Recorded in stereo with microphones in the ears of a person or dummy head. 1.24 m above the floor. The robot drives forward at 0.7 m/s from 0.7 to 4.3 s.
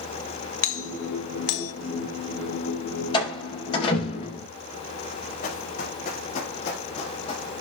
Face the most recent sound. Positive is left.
turn(degrees=30)  # may be behind; listen again after turning